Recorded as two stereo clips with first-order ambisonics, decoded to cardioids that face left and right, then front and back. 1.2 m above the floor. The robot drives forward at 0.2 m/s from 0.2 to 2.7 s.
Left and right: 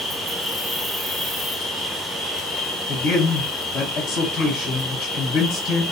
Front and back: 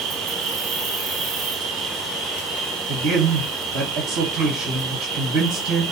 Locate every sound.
0.0 s an insect: 170° right, 0.8 m; by 5.9 s 175° right, 1.2 m
2.9 s a man speaking: 140° left, 1.1 m